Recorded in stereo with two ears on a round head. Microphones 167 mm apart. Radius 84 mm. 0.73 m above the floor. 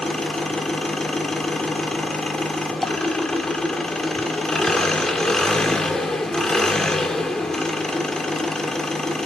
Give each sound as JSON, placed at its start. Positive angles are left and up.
{"t": 0.0, "sound": "an engine running", "side_deg": 5, "distance_m": 1.5}